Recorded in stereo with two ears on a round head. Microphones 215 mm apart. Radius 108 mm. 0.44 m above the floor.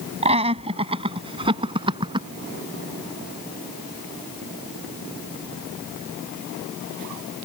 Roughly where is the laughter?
Right.